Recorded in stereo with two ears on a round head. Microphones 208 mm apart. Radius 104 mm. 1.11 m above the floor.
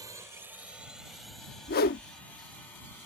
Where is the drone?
15° right (ahead or behind); by 3.1 s 10° left (ahead or behind).